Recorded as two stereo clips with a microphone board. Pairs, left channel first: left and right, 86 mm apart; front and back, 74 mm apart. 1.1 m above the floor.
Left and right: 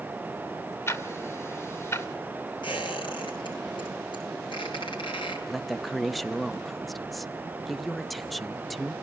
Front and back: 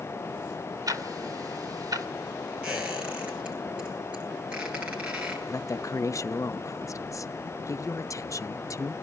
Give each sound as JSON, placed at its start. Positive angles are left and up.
{"t": 0.9, "sound": "ticking", "azimuth_deg": 150, "distance_m": 2.0}
{"t": 2.6, "sound": "a squeak", "azimuth_deg": 110, "distance_m": 9.0}
{"t": 5.5, "sound": "a woman speaking", "azimuth_deg": 0, "distance_m": 0.8}